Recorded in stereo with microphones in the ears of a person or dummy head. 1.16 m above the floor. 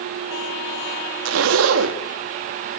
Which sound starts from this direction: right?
A zipper, at 1.2 s.